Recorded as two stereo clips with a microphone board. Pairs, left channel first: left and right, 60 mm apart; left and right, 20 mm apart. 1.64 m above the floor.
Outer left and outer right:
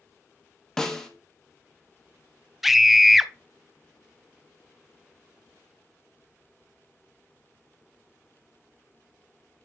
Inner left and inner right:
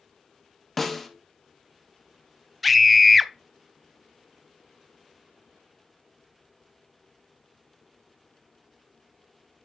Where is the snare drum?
5° left (ahead or behind), 1.2 m.